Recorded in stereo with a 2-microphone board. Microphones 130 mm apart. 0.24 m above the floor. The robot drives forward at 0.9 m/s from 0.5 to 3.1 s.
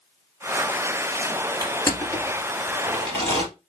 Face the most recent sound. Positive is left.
turn(degrees=15)  # may be behind; listen again after turning